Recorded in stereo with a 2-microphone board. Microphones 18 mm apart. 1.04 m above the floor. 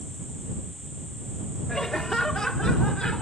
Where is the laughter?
25° left (ahead or behind); by 3.2 s 35° left (ahead or behind).